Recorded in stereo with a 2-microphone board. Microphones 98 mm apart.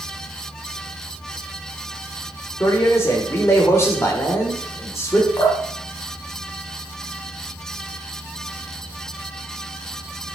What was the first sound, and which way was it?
A man speaking, 30° left (ahead or behind).